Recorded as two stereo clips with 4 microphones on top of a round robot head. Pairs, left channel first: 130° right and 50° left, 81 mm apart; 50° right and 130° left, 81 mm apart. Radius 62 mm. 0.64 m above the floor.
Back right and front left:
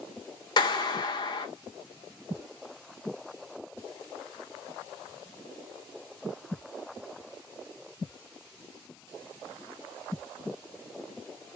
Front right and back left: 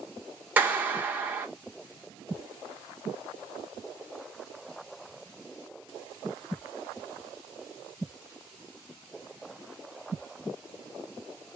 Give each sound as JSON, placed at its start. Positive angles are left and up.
{"t": 0.6, "sound": "a clap", "azimuth_deg": -160, "distance_m": 1.1}